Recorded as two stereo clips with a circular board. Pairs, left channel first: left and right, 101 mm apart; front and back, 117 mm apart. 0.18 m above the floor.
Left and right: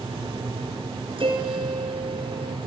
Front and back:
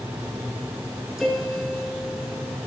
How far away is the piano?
About 2 m.